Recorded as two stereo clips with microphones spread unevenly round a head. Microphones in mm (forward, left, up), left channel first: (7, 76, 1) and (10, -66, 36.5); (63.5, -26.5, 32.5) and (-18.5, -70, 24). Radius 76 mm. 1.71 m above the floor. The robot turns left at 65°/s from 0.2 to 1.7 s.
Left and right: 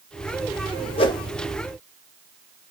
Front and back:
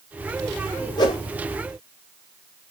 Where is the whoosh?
35° left, 0.6 m; by 1.2 s 20° left, 0.6 m.